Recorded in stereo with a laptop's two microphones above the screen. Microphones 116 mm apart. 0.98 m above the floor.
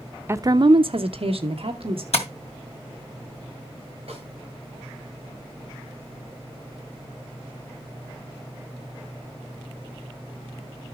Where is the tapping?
75° left (ahead or behind), 2 m.